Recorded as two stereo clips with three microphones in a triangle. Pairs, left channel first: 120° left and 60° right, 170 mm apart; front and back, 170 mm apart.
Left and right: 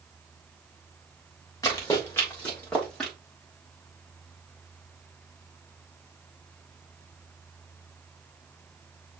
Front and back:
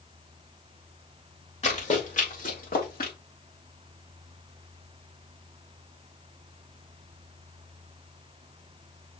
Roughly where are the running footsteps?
Ahead left.